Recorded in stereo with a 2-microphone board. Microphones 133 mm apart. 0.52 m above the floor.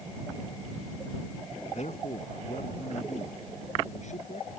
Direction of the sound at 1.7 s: 60° left (ahead or behind).